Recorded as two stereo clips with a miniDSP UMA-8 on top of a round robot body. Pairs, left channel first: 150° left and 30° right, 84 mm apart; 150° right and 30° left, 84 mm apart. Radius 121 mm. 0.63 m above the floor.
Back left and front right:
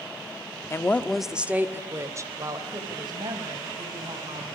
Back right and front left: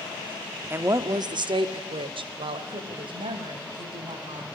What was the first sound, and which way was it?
A woman speaking, 95° left.